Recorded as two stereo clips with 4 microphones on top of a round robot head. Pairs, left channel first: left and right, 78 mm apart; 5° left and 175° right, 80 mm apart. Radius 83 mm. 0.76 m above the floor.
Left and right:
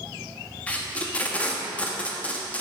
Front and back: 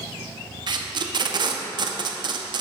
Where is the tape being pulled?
165° left, 0.8 m.